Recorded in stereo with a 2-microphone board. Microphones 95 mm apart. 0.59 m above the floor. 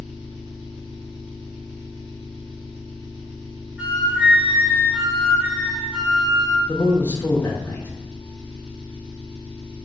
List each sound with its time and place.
0.0 s an engine running: 75° right (ahead or behind), 1.2 m
3.8 s a flute: 15° right (ahead or behind), 0.8 m
6.7 s a man speaking: 20° left (ahead or behind), 0.6 m